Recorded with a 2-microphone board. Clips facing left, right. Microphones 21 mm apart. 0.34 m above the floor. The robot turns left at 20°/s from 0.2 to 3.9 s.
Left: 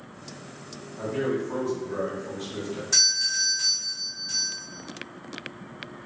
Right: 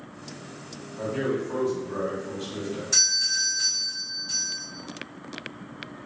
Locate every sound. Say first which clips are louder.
1.0 s a man speaking: even; 130° right, 1.7 m; by 2.8 s 170° right, 1.7 m
2.9 s a doorbell: left 1 dB; centre (ahead or behind), 1.7 m; by 4.5 s 10° left (ahead or behind), 1.7 m